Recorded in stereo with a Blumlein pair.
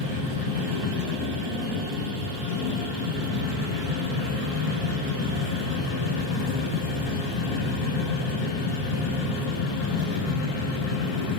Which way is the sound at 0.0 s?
35° left.